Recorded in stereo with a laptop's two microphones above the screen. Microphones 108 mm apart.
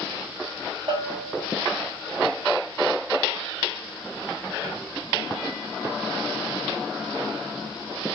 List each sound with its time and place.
0.9 s a bell: 55° right (ahead or behind), 0.9 m